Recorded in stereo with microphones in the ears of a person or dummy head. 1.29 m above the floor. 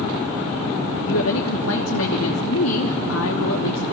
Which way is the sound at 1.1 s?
80° left.